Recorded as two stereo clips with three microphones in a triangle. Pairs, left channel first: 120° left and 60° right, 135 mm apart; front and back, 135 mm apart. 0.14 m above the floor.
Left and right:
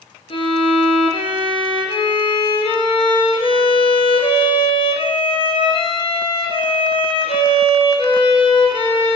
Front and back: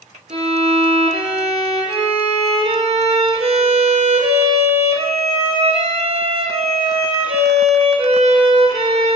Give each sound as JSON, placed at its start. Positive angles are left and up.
{"t": 0.3, "sound": "a violin", "azimuth_deg": 155, "distance_m": 1.2}